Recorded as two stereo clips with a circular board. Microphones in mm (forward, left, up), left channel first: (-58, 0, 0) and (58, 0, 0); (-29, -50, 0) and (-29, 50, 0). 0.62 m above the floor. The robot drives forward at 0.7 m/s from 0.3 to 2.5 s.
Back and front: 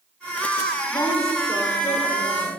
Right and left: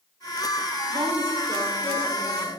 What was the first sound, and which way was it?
A woman speaking, 120° left.